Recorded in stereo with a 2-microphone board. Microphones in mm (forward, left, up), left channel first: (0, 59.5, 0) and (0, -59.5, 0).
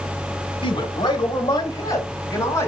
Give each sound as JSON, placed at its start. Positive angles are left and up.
{"t": 0.6, "sound": "a man speaking", "side_deg": 40, "distance_m": 1.9}